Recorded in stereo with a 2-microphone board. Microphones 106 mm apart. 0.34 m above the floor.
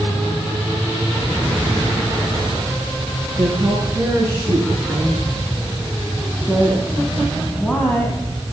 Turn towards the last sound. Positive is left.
turn(degrees=20)  # may be behind; listen again after turning